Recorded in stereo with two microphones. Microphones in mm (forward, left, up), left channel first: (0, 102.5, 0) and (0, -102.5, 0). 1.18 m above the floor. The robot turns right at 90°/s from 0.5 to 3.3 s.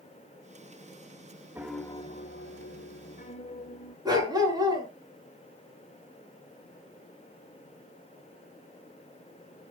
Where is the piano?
15° right, 1.7 m; by 4.0 s 145° left, 1.7 m.